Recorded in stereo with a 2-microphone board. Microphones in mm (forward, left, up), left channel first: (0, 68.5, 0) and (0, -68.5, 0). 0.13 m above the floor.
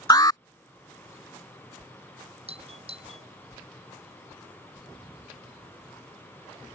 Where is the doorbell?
45° right (ahead or behind).